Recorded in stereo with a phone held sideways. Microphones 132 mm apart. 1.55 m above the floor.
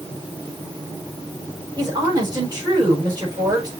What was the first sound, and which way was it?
A woman speaking, 35° right (ahead or behind).